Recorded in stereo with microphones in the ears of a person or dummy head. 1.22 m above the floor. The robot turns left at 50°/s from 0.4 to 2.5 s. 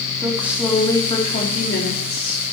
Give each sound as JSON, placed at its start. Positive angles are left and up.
{"t": 0.2, "sound": "a woman speaking", "azimuth_deg": -175, "distance_m": 3.0}